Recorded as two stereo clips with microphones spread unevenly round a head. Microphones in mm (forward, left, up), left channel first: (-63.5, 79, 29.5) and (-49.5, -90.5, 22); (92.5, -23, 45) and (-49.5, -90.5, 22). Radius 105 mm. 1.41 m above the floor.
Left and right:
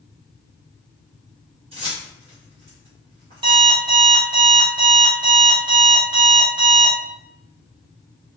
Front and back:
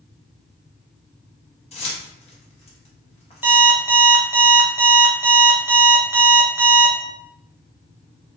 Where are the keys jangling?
20° right, 1.3 m.